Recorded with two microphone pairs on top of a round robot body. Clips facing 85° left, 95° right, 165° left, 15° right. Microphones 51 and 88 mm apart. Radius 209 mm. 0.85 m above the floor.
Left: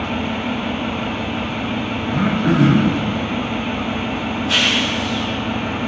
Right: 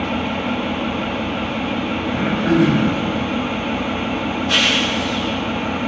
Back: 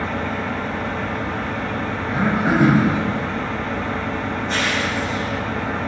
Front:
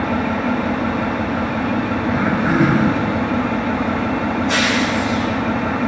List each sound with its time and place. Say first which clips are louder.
0.0 s an engine running: right 1 dB, front 5 dB; 5° right, 0.8 m
2.1 s throat clearing: left 1 dB, even; 75° left, 2.5 m